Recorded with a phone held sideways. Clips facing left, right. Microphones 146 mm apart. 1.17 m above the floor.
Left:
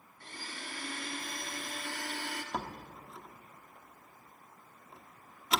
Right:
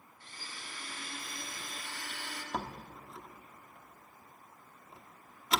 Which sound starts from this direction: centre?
A door slam, at 2.5 s.